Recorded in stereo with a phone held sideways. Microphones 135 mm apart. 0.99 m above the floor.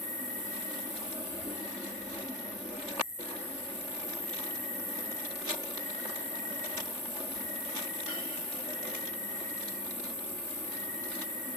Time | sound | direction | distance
0.0 | an insect | 85° right | 7.5 m